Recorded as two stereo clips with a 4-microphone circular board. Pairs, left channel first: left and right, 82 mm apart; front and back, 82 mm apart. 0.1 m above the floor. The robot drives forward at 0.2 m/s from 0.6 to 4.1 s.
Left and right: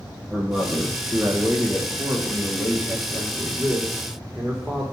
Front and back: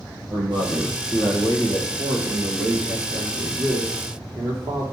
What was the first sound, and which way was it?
A man speaking, 170° right.